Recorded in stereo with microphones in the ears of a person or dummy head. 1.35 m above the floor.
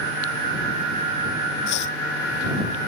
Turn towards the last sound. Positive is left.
turn(degrees=60)  # may be behind; listen again after turning